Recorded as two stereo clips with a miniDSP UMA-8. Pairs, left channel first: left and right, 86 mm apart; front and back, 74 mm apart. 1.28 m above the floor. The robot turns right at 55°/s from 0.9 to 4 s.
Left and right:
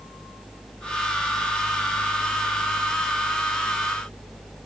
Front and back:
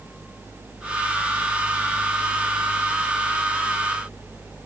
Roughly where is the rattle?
No rattle in this recording.